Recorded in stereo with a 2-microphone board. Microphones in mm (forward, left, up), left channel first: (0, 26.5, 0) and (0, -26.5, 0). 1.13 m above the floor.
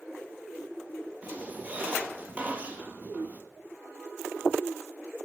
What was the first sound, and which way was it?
A squeak, 30° right (ahead or behind).